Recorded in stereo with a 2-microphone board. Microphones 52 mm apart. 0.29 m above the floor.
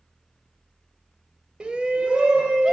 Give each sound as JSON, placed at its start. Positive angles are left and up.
{"t": 1.6, "sound": "a shout", "side_deg": -15, "distance_m": 0.9}